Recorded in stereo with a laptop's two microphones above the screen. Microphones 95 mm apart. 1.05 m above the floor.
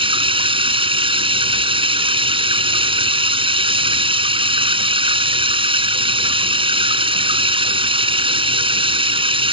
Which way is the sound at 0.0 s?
70° right (ahead or behind).